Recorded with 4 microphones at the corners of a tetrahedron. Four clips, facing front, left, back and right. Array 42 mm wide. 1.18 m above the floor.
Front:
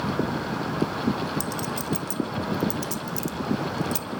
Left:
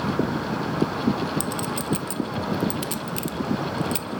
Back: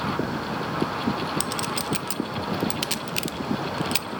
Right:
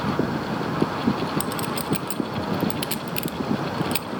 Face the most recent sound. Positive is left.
turn(degrees=-155)